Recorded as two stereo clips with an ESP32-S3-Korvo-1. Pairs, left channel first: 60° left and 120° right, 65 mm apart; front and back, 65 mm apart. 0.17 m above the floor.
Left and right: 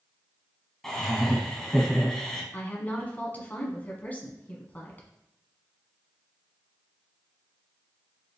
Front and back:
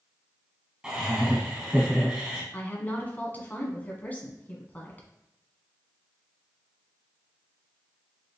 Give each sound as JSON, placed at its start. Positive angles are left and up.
{"t": 0.8, "sound": "laughter", "azimuth_deg": 130, "distance_m": 1.0}
{"t": 2.5, "sound": "a woman speaking", "azimuth_deg": 30, "distance_m": 1.1}